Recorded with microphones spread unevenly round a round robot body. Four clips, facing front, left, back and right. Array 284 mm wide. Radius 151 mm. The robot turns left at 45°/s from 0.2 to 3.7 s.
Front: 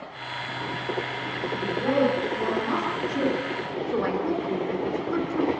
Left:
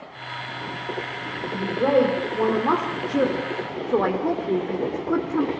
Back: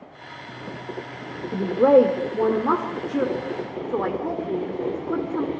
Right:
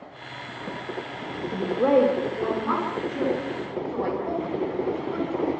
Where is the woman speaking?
160° right, 2.5 m; by 5.5 s 100° left, 2.5 m.